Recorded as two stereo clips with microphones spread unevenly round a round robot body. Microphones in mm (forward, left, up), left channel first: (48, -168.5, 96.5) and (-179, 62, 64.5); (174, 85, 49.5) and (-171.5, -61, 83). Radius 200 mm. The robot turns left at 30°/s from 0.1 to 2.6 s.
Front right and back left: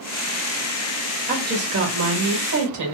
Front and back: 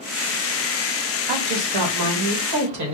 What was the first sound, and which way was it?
A woman speaking, 160° right.